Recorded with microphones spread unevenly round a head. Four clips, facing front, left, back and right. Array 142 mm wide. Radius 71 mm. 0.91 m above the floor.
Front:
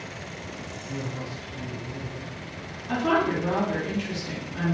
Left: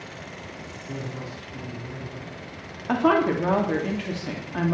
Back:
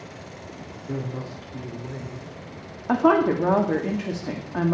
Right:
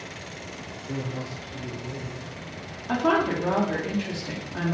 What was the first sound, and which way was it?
A man speaking, 170° right.